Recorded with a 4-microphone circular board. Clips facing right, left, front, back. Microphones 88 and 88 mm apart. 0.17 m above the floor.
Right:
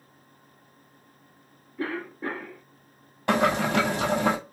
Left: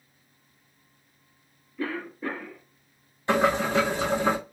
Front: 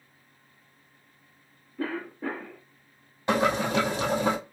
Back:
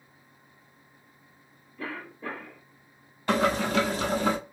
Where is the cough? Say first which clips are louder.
Even, front 5 dB; 30° right, 2.5 m.